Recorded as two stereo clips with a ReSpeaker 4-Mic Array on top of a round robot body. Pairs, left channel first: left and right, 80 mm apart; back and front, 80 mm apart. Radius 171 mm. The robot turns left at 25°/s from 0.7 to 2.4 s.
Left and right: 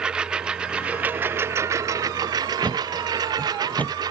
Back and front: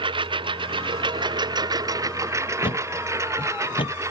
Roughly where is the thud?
Behind.